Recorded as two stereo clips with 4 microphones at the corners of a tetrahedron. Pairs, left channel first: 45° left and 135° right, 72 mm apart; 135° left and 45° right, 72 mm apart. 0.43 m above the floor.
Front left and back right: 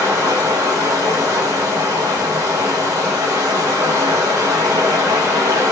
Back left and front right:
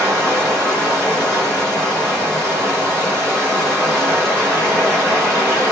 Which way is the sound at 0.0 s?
145° right.